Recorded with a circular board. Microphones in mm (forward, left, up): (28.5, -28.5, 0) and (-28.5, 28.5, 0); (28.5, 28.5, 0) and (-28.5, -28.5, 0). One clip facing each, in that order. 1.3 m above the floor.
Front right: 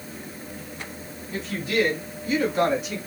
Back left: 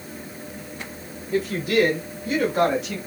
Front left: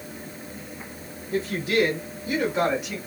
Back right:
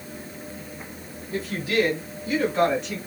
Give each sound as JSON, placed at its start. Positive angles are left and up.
{"t": 1.3, "sound": "a woman speaking", "azimuth_deg": 105, "distance_m": 3.0}